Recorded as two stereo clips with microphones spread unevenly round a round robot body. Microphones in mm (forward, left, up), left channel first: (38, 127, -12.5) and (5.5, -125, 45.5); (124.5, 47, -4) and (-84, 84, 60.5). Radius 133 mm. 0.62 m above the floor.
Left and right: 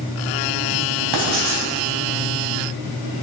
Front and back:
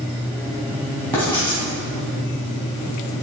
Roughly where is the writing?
Right.